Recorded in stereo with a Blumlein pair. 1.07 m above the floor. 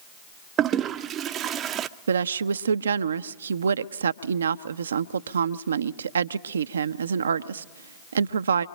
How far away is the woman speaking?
About 0.6 m.